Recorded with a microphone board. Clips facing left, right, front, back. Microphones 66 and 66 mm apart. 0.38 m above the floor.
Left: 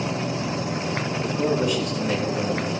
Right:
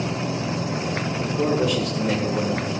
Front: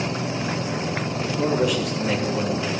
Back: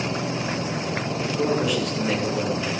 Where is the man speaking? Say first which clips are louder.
Right 1 dB, front 2 dB; 90° right, 8.5 m; by 2.7 s 85° right, 9.5 m.